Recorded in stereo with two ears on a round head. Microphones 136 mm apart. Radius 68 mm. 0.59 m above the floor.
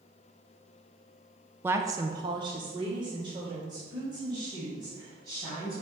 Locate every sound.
1.6 s a woman speaking: 15° right (ahead or behind), 0.6 m; by 5.8 s 25° right (ahead or behind), 3.5 m